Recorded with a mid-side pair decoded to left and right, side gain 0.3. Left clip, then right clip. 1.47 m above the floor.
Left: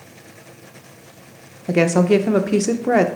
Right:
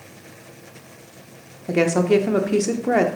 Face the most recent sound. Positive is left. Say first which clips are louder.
# left 2 dB
turn(degrees=30)